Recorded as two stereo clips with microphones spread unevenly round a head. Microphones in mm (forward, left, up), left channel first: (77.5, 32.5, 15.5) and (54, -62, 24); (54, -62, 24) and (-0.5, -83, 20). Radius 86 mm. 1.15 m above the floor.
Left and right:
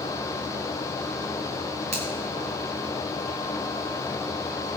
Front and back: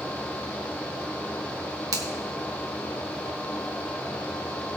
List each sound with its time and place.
1.9 s a finger snap: 150° right, 1.5 m